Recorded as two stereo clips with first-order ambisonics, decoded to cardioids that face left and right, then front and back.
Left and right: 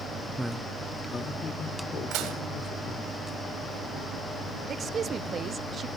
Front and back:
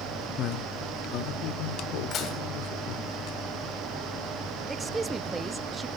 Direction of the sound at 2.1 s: 60° right.